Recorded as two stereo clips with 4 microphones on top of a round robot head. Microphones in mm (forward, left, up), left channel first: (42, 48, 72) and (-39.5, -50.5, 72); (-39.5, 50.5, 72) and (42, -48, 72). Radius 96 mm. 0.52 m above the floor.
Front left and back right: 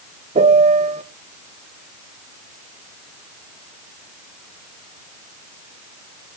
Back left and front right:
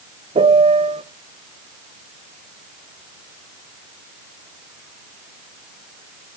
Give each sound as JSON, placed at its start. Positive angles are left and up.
{"t": 0.3, "sound": "a piano", "azimuth_deg": -95, "distance_m": 0.9}